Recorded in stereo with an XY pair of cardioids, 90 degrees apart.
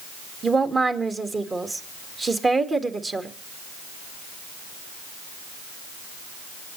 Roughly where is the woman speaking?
Ahead right.